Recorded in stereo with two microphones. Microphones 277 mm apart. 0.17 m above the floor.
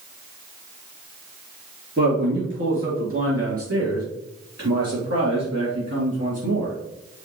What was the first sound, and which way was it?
A man speaking, 40° right (ahead or behind).